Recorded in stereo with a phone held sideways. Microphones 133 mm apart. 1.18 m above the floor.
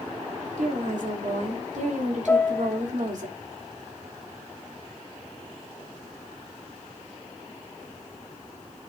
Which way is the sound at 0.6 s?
70° right (ahead or behind).